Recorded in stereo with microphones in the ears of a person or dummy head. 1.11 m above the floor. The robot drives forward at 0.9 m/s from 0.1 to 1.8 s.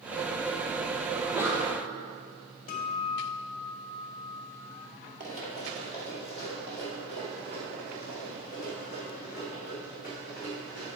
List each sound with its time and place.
1.1 s a sneeze: 5° right (ahead or behind), 0.6 m
2.7 s a guitar: 40° left (ahead or behind), 1.5 m
5.2 s running footsteps: 45° right (ahead or behind), 2.0 m; by 10.9 s 10° right (ahead or behind), 5.5 m